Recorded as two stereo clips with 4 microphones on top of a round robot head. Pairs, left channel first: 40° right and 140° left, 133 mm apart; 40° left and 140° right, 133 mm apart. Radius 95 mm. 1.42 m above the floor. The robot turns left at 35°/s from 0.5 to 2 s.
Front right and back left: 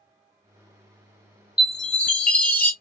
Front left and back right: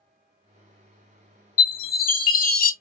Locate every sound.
1.6 s a chime: 55° left, 0.8 m; by 2.7 s 40° left, 0.8 m